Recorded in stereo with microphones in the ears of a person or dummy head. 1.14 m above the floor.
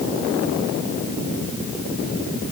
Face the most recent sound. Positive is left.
No sound to turn to.